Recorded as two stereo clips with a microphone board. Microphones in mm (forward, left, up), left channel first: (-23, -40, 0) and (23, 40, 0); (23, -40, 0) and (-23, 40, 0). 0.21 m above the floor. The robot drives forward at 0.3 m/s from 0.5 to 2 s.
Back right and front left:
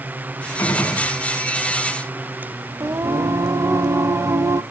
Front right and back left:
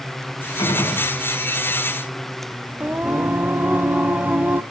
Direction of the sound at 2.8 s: 65° left.